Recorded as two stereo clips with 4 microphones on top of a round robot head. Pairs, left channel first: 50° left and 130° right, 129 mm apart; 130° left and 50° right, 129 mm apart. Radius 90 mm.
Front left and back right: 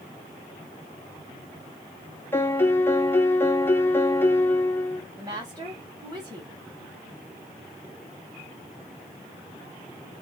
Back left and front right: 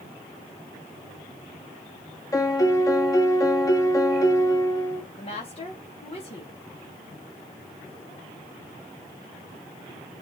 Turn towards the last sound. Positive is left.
turn(degrees=165)